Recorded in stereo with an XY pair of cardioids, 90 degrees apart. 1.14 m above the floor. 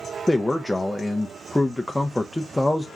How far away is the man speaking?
About 0.6 m.